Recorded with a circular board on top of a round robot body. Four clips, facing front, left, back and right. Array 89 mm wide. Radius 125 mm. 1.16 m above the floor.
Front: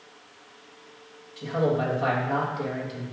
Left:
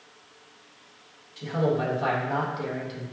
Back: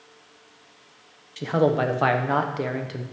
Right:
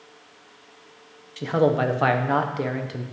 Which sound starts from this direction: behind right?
A man speaking, at 1.4 s.